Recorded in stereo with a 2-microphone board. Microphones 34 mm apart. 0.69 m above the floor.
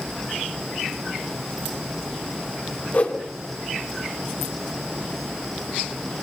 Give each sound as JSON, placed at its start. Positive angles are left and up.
{"t": 2.9, "sound": "a whoosh", "side_deg": 40, "distance_m": 4.0}